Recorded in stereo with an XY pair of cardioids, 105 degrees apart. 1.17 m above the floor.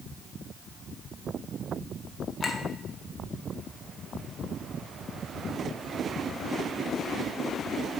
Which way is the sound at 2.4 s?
30° left.